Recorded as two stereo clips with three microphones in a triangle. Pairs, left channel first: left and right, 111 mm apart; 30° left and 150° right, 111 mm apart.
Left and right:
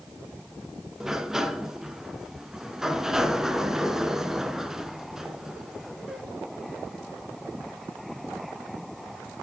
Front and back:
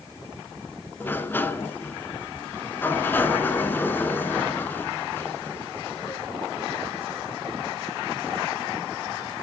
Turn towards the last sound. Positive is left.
turn(degrees=-15)